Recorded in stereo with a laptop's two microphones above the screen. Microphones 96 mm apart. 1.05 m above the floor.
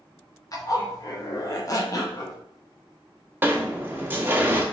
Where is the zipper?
35° left (ahead or behind), 0.9 m.